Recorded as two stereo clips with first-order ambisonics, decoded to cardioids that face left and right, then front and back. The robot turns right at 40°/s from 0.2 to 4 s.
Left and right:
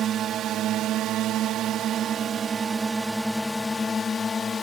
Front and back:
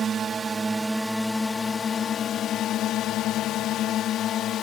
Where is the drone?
125° right; by 4.6 s 25° left.